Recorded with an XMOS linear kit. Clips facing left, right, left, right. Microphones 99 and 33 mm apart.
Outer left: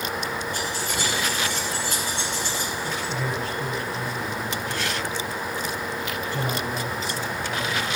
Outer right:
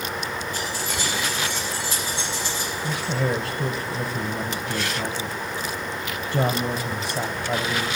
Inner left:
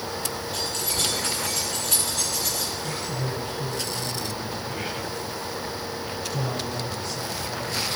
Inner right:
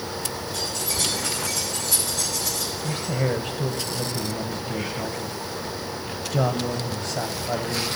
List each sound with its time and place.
0.5 s keys jangling: 55° left (ahead or behind), 6 m
2.8 s a man speaking: 45° right (ahead or behind), 0.7 m